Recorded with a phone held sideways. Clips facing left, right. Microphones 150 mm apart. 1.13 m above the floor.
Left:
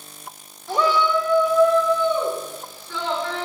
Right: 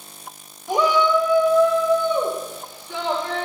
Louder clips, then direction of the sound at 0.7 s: Right 2 dB; 15° right (ahead or behind).